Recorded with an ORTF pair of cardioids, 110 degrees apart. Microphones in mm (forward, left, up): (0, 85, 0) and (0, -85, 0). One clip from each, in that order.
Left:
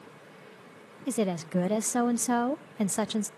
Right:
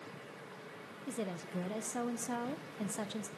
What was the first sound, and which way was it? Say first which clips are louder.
A woman speaking: left 11 dB; 55° left.